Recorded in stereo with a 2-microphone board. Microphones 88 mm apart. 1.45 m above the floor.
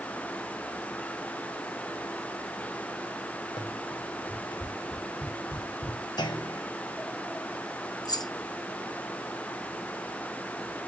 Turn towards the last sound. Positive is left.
turn(degrees=50)  # may be behind; listen again after turning